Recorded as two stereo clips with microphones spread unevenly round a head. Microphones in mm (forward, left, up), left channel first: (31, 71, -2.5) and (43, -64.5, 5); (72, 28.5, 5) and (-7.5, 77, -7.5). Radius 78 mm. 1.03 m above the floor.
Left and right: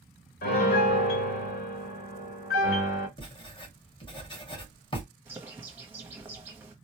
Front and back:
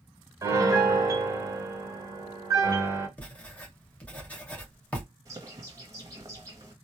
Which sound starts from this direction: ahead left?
Writing, at 3.2 s.